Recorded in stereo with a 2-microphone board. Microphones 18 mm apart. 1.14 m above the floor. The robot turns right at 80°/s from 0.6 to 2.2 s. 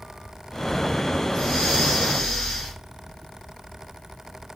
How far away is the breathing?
About 1.0 m.